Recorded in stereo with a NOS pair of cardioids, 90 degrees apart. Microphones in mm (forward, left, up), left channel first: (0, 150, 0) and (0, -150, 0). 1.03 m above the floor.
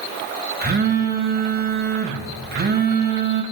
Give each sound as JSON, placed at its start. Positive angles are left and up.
{"t": 0.6, "sound": "a phone buzzing", "azimuth_deg": -35, "distance_m": 2.0}